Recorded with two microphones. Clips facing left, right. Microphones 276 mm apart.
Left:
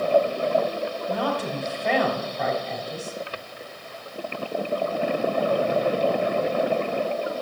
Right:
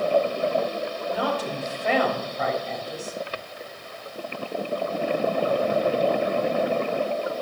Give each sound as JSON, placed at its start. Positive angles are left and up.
{"t": 1.1, "sound": "a woman speaking", "side_deg": 0, "distance_m": 4.0}